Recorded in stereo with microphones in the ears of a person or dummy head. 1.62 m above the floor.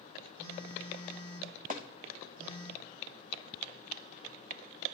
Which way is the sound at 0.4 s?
55° right (ahead or behind).